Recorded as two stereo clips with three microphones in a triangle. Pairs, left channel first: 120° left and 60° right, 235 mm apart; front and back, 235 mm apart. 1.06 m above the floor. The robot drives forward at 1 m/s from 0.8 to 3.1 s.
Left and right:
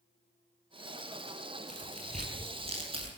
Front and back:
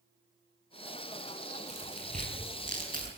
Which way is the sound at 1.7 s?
115° right.